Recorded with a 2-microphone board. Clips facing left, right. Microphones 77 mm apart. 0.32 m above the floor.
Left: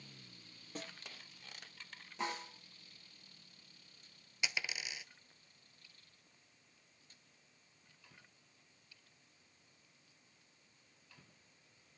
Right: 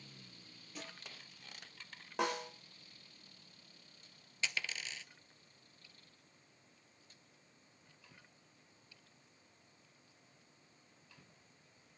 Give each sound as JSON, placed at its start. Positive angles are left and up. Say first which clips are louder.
{"t": 0.8, "sound": "a snare drum", "louder": "left 2 dB", "side_deg": 45, "distance_m": 5.0}
{"t": 2.2, "sound": "a snare drum", "louder": "right 5 dB", "side_deg": -75, "distance_m": 4.5}
{"t": 4.4, "sound": "a dropped coin", "louder": "even", "side_deg": 15, "distance_m": 0.6}